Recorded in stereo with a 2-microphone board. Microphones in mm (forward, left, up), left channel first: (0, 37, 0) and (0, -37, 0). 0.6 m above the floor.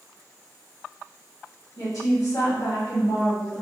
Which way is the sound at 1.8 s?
55° left (ahead or behind).